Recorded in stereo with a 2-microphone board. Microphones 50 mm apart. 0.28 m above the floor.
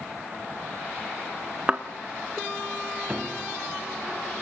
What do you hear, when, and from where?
1.7 s a thud: 20° right (ahead or behind), 1.5 m
3.1 s a piano: 20° right (ahead or behind), 1.5 m